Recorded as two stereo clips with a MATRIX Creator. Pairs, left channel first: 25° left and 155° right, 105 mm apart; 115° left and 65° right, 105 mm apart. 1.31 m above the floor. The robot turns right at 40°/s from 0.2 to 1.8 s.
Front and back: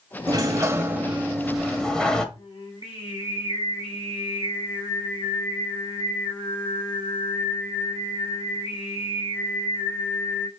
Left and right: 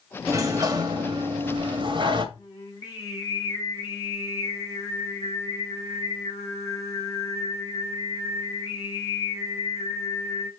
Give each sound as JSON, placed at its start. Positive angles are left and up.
{"t": 0.3, "sound": "a sliding door", "azimuth_deg": -120, "distance_m": 1.5}
{"t": 2.4, "sound": "singing", "azimuth_deg": 55, "distance_m": 4.5}